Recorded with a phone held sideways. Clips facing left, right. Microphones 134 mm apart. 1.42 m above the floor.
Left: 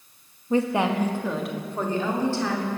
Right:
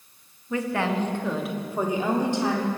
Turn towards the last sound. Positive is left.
turn(degrees=-20)  # may be behind; listen again after turning